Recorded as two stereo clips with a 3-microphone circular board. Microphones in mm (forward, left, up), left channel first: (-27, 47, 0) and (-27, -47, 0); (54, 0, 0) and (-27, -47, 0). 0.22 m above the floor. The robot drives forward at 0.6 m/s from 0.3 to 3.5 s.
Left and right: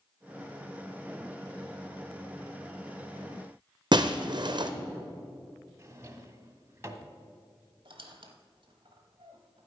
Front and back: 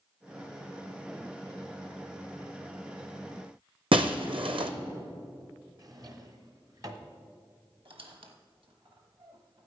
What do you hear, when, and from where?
3.9 s breaking glass: 130° right, 0.7 m
5.8 s a drawer: 135° right, 0.9 m
7.8 s a squeak: 125° right, 1.1 m